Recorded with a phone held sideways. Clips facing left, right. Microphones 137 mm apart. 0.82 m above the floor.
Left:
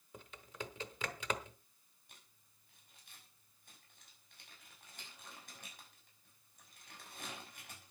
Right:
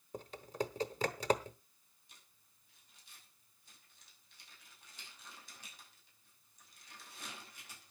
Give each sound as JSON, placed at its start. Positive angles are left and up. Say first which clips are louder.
{"t": 0.1, "sound": "typing on a keyboard", "louder": "right 9 dB", "side_deg": -40, "distance_m": 0.9}
{"t": 2.1, "sound": "crumpling", "louder": "left 2 dB", "side_deg": 60, "distance_m": 6.0}